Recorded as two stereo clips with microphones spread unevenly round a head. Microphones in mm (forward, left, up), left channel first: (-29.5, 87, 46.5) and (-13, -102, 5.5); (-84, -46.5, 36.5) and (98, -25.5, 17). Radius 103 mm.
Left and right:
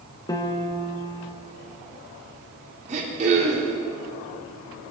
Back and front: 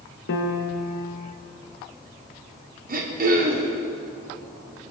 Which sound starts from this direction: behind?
A piano, at 0.3 s.